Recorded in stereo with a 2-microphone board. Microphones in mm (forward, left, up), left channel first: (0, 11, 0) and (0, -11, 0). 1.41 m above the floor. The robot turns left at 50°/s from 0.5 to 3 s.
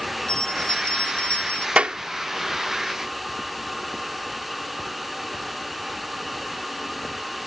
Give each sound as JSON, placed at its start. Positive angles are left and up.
{"t": 0.3, "sound": "a bell", "azimuth_deg": 140}
{"t": 1.8, "sound": "a clap", "side_deg": -75}